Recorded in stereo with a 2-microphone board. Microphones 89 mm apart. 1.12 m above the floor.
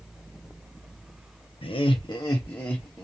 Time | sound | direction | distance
1.6 | laughter | 80° left | 0.6 m